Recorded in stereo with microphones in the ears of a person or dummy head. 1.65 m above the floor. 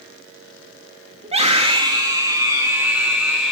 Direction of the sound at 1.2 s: 30° right (ahead or behind).